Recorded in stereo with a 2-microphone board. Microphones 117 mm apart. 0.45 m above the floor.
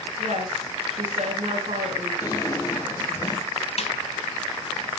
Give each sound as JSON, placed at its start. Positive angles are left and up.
{"t": 0.2, "sound": "a woman speaking", "side_deg": -75, "distance_m": 5.5}
{"t": 2.2, "sound": "a drawer", "side_deg": 30, "distance_m": 2.5}
{"t": 3.8, "sound": "a snare drum", "side_deg": 65, "distance_m": 1.9}